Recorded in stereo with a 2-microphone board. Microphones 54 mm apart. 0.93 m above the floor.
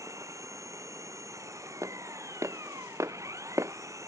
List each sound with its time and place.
0.0 s an engine running: 85° right
1.8 s footsteps: 85° right; by 3.7 s 70° right (ahead or behind)